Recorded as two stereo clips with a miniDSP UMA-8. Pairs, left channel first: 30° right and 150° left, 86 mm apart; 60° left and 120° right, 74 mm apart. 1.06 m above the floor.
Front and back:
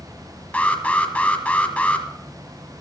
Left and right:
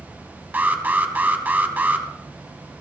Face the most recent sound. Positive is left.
turn(degrees=-85)